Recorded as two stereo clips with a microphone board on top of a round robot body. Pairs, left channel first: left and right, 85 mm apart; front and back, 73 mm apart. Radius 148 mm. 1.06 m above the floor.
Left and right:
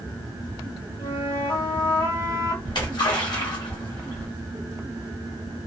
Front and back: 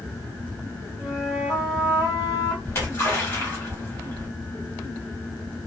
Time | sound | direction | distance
1.0 | a flute | 110° left | 1.1 m
2.6 | a splash | 60° left | 1.5 m